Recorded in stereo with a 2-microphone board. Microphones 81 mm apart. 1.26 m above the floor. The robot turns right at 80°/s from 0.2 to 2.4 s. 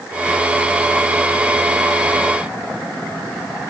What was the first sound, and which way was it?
Only background noise.